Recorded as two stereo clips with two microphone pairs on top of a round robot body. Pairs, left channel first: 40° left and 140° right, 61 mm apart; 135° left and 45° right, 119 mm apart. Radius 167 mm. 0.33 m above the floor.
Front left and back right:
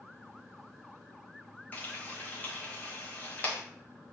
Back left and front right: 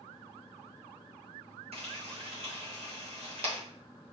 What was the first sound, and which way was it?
Frying, 20° right.